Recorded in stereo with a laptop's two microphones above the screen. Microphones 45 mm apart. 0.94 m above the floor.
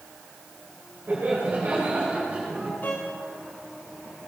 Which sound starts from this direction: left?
A violin, at 2.8 s.